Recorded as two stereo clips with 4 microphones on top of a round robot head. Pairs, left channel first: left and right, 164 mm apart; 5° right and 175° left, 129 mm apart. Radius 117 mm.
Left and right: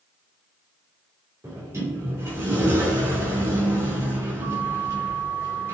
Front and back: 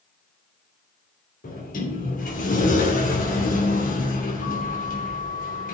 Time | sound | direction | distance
1.4 | a sliding door | 15° right | 3 m